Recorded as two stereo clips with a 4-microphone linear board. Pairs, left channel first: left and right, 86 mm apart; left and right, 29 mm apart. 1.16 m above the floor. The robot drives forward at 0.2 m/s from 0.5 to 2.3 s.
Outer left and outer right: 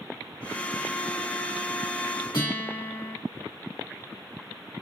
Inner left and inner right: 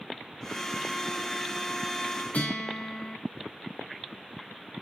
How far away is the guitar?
About 2.5 m.